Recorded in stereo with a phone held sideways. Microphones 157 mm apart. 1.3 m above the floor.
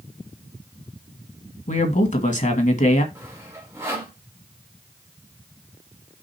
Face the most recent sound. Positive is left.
turn(degrees=-15)  # may be behind; listen again after turning